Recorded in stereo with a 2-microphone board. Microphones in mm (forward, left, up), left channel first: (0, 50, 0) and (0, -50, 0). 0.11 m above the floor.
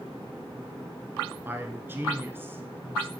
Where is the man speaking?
20° right (ahead or behind), 1.1 m.